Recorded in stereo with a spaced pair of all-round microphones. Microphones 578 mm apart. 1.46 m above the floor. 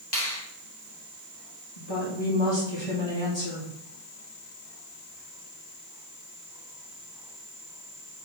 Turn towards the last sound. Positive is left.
turn(degrees=45)  # may be behind; listen again after turning